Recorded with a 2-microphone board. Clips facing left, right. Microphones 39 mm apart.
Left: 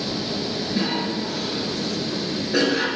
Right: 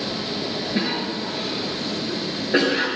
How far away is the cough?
About 3.5 m.